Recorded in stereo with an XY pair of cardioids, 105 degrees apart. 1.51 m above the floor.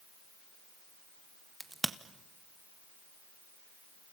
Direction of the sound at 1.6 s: 15° right.